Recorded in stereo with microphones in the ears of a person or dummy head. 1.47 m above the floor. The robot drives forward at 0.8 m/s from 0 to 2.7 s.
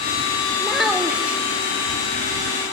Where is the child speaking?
5° right (ahead or behind), 1.5 m.